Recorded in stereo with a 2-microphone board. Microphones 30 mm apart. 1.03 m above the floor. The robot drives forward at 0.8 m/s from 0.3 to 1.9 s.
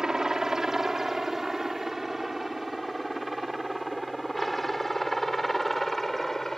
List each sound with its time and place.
0.0 s a helicopter: 20° right (ahead or behind); by 6.6 s 10° left (ahead or behind)